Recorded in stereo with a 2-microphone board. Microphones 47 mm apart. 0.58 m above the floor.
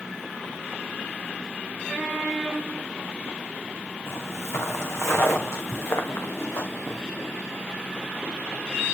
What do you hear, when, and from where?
4.1 s footsteps: 70° left (ahead or behind), 2 m; by 7.0 s 80° left, 3.5 m